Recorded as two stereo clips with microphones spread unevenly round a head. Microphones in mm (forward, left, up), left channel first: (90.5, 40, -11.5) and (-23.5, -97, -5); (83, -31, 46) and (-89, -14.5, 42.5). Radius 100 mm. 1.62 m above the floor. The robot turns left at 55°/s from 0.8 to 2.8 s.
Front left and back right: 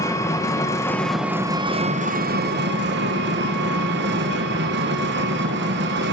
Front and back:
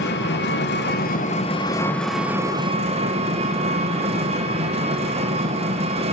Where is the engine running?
25° right, 1.1 m; by 6.2 s 135° right, 1.1 m.